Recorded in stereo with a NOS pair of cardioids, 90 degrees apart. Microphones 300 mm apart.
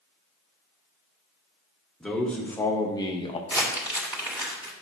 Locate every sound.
2.0 s a man speaking: straight ahead, 2 m; by 3.4 s 20° left, 1.4 m
3.5 s crumpling: 5° right, 2.5 m